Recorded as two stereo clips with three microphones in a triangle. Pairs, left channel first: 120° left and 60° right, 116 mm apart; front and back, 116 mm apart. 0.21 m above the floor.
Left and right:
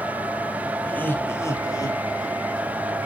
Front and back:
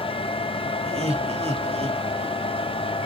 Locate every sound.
0.8 s laughter: 165° right, 2 m; by 2.7 s 155° left, 2.5 m